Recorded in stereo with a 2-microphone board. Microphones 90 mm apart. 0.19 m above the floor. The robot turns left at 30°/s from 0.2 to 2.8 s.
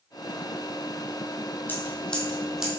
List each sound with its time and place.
1.7 s scissors: 20° left (ahead or behind), 1.6 m; by 2.7 s 10° right (ahead or behind), 1.6 m